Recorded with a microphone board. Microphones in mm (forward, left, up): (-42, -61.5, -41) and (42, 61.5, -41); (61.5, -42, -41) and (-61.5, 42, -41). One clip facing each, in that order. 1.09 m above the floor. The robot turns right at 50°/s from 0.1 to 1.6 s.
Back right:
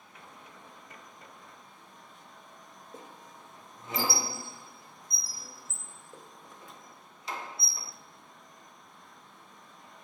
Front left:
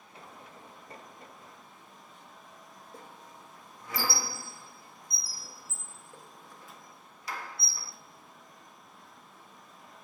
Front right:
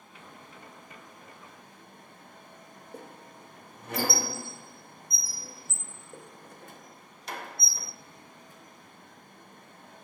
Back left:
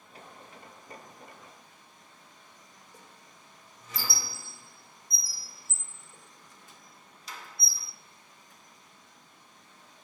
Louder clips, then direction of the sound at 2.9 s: Back right 2 dB, front right 12 dB; 55° right.